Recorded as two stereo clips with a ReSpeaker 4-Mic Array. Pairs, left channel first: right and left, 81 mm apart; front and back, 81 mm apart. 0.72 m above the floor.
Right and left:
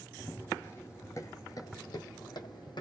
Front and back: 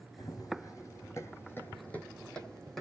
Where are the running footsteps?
25° right, 1.5 m; by 2.8 s 90° right, 1.5 m.